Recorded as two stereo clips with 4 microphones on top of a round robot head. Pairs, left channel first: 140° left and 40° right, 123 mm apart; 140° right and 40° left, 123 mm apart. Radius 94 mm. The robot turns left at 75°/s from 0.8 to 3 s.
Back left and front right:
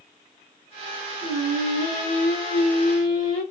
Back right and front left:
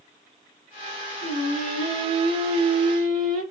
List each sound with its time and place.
1.2 s singing: 140° right, 2 m; by 3.4 s 90° left, 2 m